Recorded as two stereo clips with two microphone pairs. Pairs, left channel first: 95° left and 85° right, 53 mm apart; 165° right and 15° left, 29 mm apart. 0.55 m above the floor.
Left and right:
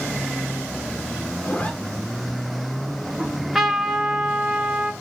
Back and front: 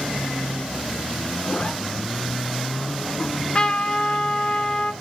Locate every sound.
1.4 s a zipper: 155° left, 1.4 m
3.2 s a trumpet: 160° right, 1.5 m